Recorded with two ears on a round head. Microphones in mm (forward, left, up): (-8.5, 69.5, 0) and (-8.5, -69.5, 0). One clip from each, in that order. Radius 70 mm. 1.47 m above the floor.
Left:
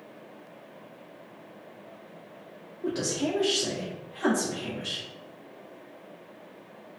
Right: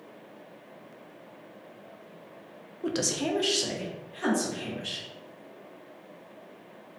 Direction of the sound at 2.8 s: 70° right (ahead or behind).